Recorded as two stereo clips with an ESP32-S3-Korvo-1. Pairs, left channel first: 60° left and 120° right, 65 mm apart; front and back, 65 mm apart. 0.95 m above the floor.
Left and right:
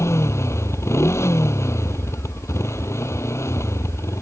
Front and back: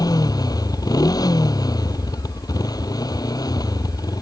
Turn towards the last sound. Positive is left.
turn(degrees=15)